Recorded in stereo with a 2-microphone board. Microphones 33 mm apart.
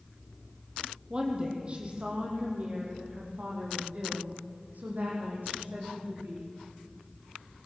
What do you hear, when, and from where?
1.1 s a woman speaking: 25° right (ahead or behind), 5 m; by 6.5 s 65° right (ahead or behind), 9.5 m